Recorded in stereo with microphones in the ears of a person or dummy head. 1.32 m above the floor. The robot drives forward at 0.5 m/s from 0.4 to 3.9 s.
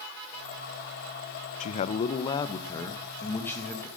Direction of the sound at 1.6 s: 45° left (ahead or behind).